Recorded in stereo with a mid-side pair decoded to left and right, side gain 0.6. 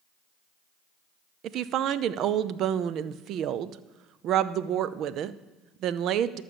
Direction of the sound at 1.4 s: 55° right.